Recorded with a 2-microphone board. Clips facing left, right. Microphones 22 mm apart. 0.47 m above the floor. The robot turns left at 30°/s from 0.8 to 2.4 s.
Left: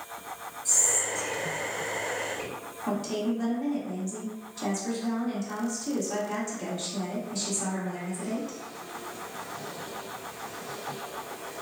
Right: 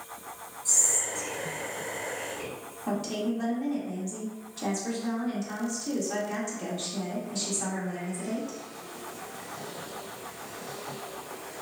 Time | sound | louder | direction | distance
0.7 | whispering | even | 10° right (ahead or behind) | 1.4 m
2.9 | a woman speaking | left 1 dB | centre (ahead or behind) | 0.8 m